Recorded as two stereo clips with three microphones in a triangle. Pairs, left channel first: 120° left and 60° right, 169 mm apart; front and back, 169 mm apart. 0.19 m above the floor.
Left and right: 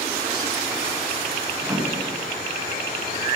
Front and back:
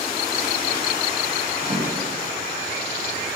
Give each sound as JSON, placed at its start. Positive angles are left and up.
{"t": 1.6, "sound": "a microwave", "azimuth_deg": -140, "distance_m": 3.0}